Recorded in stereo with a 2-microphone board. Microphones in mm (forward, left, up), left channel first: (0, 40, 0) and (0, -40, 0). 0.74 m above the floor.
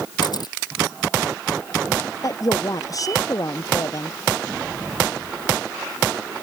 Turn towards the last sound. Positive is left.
turn(degrees=45)  # may be behind; listen again after turning